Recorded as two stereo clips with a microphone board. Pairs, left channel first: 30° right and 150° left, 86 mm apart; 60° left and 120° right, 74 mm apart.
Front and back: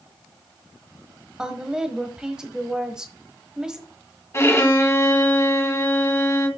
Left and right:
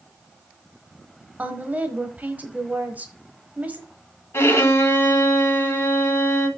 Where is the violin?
15° left, 1.5 m.